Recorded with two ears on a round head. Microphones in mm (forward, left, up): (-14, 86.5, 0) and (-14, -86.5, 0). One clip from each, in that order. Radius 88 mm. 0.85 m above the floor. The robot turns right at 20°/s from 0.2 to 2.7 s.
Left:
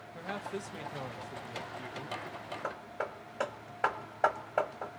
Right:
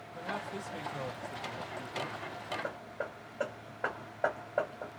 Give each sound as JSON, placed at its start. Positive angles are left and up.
{"t": 0.1, "sound": "a man speaking", "azimuth_deg": 160, "distance_m": 0.7}
{"t": 2.6, "sound": "hammering", "side_deg": 65, "distance_m": 0.9}